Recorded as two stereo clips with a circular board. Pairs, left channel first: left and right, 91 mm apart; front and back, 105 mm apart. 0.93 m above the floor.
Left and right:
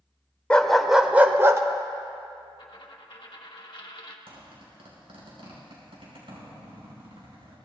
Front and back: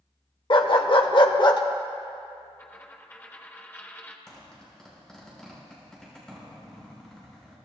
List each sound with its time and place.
0.5 s a dog barking: 15° left, 0.9 m; by 1.6 s 40° right, 0.9 m
2.6 s a dropped coin: 65° left, 1.3 m
4.3 s a zipper: 85° right, 5.5 m